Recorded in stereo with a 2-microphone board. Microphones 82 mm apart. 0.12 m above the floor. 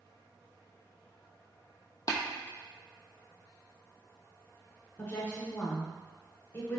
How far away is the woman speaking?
About 1.6 m.